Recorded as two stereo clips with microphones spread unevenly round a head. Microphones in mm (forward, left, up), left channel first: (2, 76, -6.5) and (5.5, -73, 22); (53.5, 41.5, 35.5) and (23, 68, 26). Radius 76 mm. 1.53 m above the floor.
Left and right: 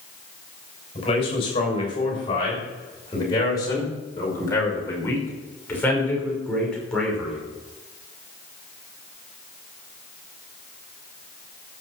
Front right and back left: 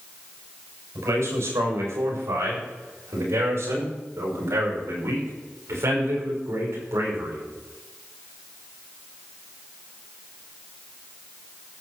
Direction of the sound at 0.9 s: 150° left.